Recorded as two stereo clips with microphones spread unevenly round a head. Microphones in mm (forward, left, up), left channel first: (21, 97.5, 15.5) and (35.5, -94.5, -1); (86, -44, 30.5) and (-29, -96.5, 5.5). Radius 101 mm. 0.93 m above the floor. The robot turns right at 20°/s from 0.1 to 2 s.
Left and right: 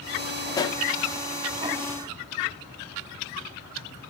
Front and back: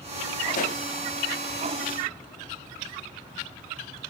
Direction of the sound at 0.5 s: 20° left.